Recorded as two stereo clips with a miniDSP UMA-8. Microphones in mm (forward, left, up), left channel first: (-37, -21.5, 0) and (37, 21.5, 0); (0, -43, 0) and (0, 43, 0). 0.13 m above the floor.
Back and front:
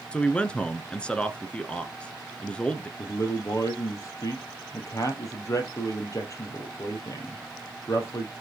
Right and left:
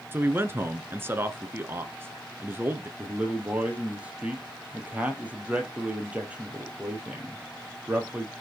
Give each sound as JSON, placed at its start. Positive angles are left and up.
{"t": 0.1, "sound": "a man speaking", "azimuth_deg": 140, "distance_m": 1.4}
{"t": 3.0, "sound": "a man speaking", "azimuth_deg": 165, "distance_m": 3.5}